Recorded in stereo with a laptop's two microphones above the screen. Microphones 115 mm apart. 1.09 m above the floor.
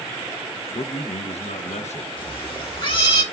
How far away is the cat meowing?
About 1.3 m.